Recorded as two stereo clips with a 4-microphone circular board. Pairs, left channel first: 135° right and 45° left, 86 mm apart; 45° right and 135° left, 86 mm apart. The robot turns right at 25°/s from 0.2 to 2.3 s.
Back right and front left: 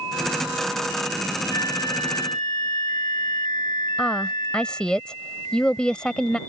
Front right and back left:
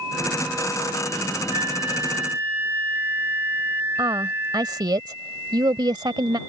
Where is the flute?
Straight behind; by 4.9 s 160° right.